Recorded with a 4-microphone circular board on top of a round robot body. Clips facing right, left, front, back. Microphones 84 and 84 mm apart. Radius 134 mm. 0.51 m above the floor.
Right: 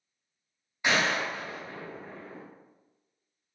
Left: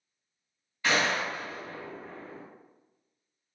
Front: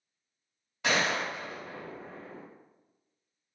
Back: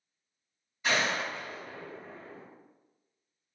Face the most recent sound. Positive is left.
turn(degrees=-20)